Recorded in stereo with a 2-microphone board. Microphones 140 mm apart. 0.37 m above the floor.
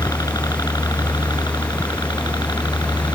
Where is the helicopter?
25° left (ahead or behind); by 3.2 s 30° left (ahead or behind).